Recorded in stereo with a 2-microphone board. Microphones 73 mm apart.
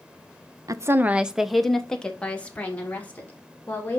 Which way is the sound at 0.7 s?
50° right (ahead or behind).